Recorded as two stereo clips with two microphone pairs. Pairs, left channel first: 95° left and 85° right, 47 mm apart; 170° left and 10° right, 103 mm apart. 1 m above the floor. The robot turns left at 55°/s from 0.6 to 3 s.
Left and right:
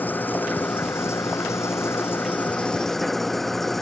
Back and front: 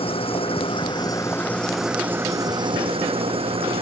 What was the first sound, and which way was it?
An engine running, 140° left.